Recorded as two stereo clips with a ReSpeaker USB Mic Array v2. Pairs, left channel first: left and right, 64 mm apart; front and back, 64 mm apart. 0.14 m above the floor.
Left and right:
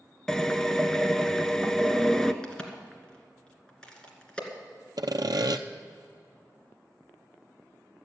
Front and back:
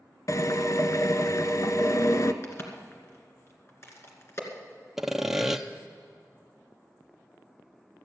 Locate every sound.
0.3 s a drill: 10° left, 0.7 m
2.4 s a crack: 20° left, 2 m
5.0 s sawing: 95° right, 0.7 m